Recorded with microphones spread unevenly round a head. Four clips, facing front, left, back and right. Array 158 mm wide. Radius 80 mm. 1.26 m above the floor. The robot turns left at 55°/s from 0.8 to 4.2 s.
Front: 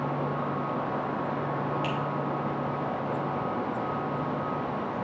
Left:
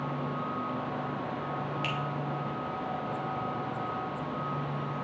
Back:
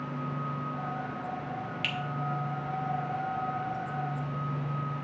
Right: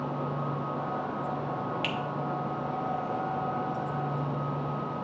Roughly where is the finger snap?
Behind.